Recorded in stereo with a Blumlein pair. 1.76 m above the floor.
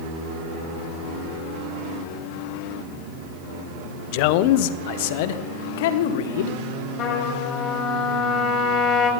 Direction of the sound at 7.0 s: 30° left.